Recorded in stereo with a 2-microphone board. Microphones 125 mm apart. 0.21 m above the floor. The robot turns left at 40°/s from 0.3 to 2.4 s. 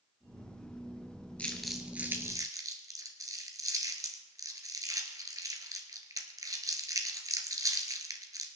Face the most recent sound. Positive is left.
turn(degrees=-30)  # may be behind; listen again after turning